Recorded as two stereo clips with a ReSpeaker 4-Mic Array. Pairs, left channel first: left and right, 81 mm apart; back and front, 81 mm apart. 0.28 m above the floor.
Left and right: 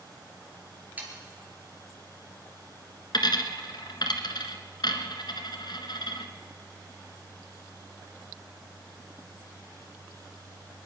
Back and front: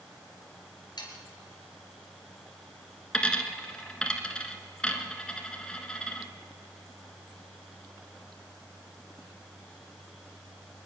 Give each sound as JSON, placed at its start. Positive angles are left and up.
{"t": 1.0, "sound": "sawing", "azimuth_deg": -160, "distance_m": 3.5}
{"t": 3.1, "sound": "a dropped coin", "azimuth_deg": 105, "distance_m": 1.5}